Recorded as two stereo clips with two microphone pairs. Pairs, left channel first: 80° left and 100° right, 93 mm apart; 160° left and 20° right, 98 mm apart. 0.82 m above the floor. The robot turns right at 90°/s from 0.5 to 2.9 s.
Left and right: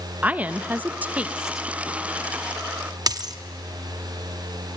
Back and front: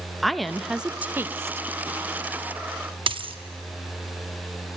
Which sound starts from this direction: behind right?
A woman speaking, at 0.2 s.